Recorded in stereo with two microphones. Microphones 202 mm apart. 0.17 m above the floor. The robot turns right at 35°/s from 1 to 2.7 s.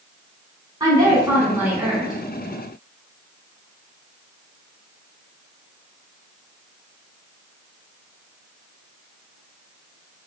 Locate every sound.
0.8 s a woman speaking: 20° right (ahead or behind), 1.1 m; by 2.2 s centre (ahead or behind), 1.1 m